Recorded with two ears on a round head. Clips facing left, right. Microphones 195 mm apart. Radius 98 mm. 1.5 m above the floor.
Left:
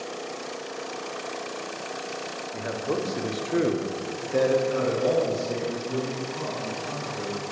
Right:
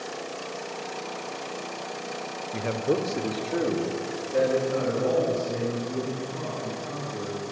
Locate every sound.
2.5 s a man speaking: 45° right (ahead or behind), 0.8 m; by 7.4 s 75° left (ahead or behind), 3.5 m